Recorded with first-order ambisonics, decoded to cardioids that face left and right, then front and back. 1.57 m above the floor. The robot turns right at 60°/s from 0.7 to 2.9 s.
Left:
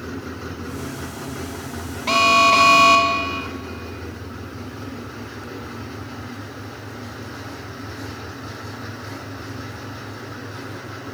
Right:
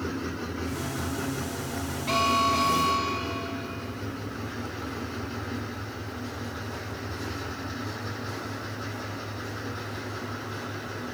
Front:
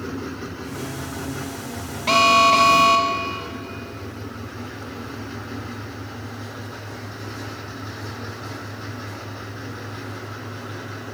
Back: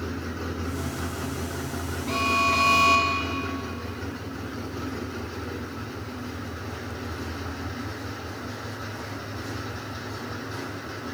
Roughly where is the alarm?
Ahead left.